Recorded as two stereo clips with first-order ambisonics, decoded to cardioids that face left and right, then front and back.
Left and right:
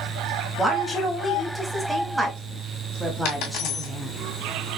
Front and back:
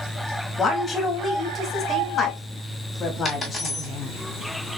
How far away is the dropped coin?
About 2.5 m.